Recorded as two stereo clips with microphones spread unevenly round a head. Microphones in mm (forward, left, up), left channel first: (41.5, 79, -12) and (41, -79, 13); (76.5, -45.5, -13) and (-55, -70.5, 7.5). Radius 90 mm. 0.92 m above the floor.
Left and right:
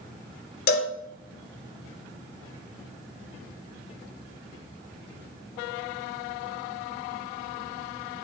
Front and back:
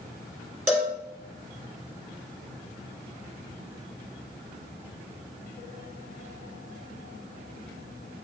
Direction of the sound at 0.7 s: 110° left.